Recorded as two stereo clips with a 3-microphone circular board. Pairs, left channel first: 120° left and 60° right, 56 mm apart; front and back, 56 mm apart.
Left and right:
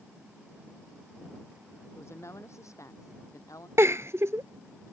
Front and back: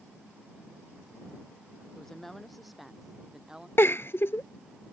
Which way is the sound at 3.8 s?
35° right.